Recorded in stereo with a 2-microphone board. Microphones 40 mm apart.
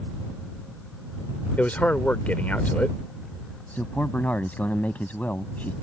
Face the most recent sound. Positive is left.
turn(degrees=45)  # may be behind; listen again after turning